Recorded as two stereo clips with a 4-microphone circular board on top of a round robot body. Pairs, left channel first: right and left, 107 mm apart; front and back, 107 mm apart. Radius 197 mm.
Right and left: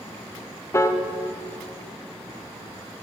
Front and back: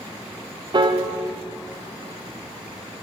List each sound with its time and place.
0.7 s a piano: 150° right, 1.1 m